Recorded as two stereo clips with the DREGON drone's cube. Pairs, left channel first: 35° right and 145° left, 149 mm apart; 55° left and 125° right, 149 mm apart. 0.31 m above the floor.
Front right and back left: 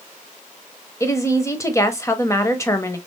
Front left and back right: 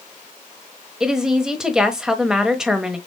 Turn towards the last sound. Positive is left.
turn(degrees=-45)